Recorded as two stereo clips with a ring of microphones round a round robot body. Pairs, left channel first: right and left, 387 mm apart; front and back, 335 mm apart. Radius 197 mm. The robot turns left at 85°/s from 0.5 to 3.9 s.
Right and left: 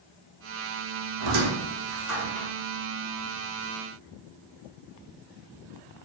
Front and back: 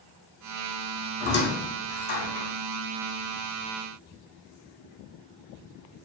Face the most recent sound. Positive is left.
turn(degrees=-155)